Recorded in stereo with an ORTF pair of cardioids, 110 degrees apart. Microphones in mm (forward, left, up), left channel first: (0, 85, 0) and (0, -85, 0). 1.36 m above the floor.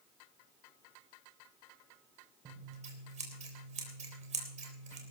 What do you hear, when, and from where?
2.5 s scissors: 45° right, 3.5 m